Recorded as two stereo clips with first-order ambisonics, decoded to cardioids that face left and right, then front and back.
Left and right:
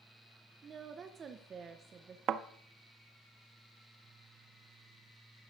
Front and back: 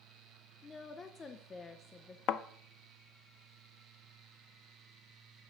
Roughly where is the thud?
Ahead right.